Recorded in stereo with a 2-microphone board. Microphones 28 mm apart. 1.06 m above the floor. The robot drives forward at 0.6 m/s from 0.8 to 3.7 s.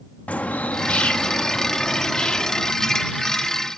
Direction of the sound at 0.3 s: 70° left (ahead or behind).